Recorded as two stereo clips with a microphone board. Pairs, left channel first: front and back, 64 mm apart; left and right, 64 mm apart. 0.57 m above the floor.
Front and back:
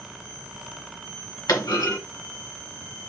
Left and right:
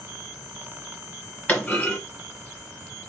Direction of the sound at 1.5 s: 25° left.